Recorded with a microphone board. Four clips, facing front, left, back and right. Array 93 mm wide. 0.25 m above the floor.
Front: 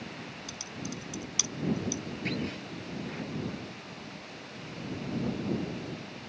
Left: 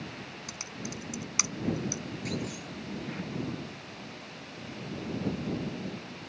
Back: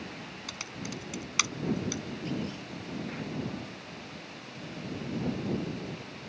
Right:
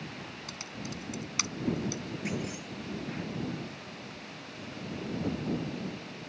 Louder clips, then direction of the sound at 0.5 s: Left 1 dB, back 1 dB; 170° left.